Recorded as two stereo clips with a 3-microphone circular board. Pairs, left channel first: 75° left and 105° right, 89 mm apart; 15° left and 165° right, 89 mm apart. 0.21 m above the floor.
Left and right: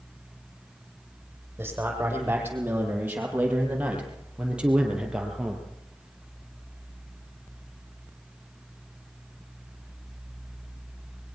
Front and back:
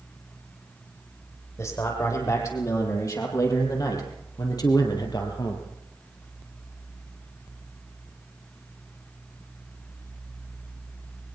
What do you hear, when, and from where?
1.6 s a man speaking: 40° right, 10 m; by 5.7 s 20° right, 5.5 m